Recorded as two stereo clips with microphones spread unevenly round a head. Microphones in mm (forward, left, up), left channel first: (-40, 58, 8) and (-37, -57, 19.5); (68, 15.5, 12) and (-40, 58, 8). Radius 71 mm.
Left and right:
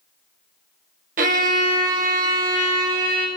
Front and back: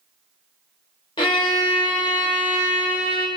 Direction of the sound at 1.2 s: 85° right.